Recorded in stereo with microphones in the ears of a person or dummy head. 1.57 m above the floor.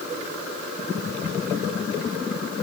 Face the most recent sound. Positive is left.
No sound to turn to.